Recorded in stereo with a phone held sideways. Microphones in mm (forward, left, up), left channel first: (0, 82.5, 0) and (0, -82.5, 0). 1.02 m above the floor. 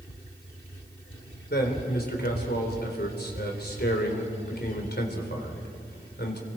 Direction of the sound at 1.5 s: 85° left.